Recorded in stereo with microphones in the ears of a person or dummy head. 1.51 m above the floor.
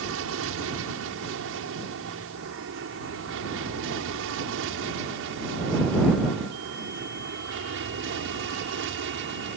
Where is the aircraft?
70° right (ahead or behind); by 9.6 s 60° right (ahead or behind).